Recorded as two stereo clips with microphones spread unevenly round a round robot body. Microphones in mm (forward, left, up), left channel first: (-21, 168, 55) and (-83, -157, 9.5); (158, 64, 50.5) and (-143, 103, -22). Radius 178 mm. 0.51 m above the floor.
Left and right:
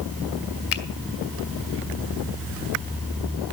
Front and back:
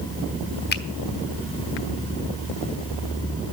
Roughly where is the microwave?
I don't hear a microwave.